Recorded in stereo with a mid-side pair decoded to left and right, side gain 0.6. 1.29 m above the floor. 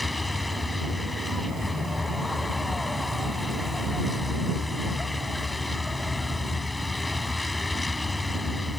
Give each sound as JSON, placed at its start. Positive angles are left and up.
{"t": 0.0, "sound": "a vehicle", "azimuth_deg": 10}